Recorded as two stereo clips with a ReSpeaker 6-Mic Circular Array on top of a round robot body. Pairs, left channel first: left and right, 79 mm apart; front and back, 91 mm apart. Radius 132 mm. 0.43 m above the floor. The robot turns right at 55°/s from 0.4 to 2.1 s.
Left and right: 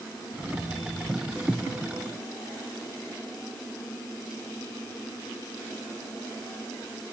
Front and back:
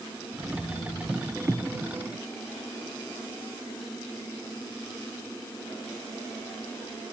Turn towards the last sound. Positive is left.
No sound to turn to.